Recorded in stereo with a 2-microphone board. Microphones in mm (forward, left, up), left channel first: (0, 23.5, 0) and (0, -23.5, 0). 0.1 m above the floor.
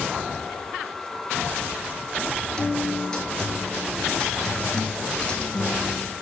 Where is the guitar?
15° left (ahead or behind), 1.6 m.